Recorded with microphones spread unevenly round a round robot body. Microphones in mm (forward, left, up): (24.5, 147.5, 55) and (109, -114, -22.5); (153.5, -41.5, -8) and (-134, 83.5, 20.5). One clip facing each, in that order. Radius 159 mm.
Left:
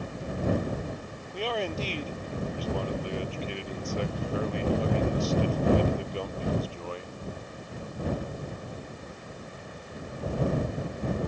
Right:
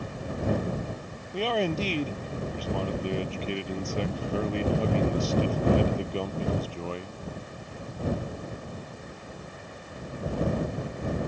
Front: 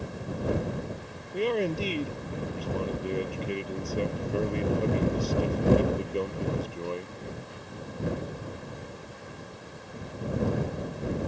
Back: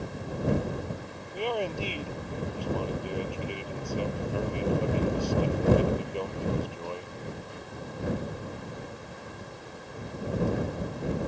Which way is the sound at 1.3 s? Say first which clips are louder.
Right 4 dB, front 4 dB; 90° right.